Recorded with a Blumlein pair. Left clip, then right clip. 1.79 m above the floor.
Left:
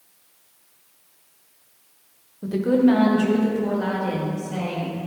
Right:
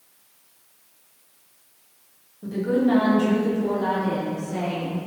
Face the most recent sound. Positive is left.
turn(degrees=40)